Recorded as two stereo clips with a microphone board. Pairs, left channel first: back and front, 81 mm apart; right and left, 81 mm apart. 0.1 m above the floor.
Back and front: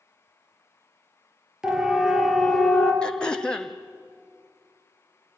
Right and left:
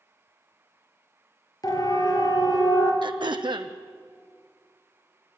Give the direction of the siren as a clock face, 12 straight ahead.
3 o'clock.